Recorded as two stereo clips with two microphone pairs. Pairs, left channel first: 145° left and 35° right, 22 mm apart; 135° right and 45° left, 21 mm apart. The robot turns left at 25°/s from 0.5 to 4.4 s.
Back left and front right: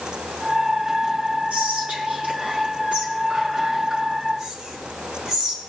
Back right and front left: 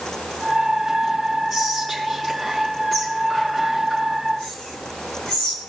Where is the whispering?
40° right, 5 m; by 5.6 s 110° right, 5 m.